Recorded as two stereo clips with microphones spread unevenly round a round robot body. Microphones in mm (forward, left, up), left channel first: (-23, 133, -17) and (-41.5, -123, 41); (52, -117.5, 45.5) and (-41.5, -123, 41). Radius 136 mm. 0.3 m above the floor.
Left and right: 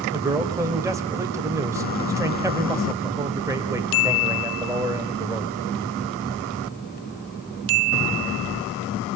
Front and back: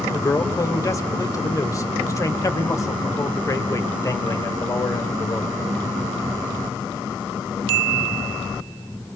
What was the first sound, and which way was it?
A man speaking, 5° right.